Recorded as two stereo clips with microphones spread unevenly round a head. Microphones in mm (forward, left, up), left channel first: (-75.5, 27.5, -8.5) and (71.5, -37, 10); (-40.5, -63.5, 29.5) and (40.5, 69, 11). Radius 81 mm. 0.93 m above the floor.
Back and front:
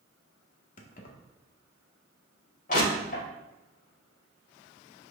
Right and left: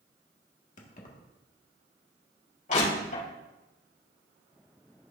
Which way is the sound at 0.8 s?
165° right.